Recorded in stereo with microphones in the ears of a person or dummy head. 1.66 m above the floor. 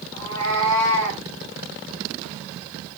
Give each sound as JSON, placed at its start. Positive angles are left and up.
{"t": 0.1, "sound": "a cat meowing", "side_deg": 15, "distance_m": 3.0}